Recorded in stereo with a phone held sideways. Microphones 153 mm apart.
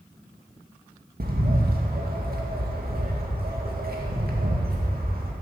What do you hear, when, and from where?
1.2 s a bird: 80° right, 2 m